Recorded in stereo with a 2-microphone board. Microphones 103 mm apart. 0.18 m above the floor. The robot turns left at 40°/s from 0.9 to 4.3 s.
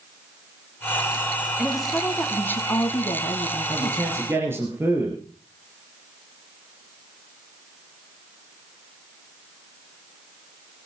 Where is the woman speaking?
170° right, 1.5 m; by 4.0 s 90° left, 1.5 m.